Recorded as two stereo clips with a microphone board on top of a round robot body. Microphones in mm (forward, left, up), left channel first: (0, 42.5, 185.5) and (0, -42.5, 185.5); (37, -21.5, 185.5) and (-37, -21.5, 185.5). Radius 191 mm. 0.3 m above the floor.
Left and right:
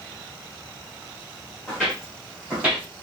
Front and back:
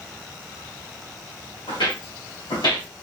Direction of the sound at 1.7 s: 5° right.